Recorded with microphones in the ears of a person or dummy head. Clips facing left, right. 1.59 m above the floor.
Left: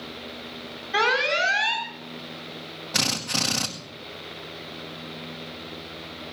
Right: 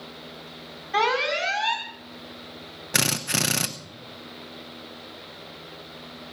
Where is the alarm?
10° left (ahead or behind), 4 m.